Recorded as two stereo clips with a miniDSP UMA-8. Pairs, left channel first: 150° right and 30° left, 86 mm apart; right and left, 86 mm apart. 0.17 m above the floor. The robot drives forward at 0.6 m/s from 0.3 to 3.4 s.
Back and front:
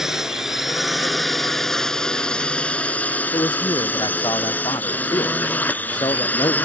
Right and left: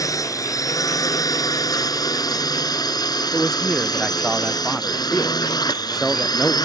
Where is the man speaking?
Straight behind.